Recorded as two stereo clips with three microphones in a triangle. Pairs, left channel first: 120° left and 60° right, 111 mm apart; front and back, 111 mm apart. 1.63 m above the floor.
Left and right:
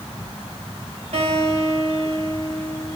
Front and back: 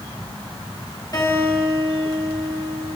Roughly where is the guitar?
Ahead right.